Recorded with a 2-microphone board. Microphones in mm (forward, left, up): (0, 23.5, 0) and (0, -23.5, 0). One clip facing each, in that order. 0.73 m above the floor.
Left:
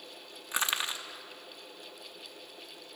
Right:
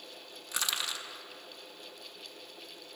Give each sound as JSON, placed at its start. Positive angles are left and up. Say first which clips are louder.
{"t": 0.5, "sound": "crushing", "louder": "left 3 dB", "side_deg": 30, "distance_m": 0.6}